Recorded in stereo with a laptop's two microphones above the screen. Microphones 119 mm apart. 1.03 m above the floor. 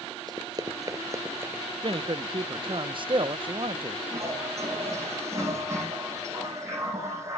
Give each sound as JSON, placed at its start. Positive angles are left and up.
{"t": 0.3, "sound": "running footsteps", "side_deg": -35, "distance_m": 1.3}
{"t": 1.8, "sound": "a man speaking", "side_deg": -45, "distance_m": 0.6}
{"t": 4.1, "sound": "a toilet flushing", "side_deg": -25, "distance_m": 8.0}